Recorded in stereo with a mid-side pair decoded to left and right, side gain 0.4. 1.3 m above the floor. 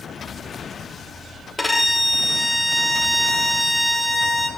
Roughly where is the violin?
Ahead.